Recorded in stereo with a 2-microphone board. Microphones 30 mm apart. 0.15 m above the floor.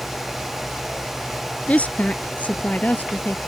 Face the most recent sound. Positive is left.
turn(degrees=65)  # may be behind; listen again after turning